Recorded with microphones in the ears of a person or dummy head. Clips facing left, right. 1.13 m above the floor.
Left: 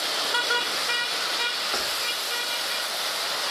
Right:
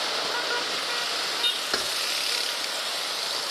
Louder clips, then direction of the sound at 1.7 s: Right 1 dB; 25° right (ahead or behind).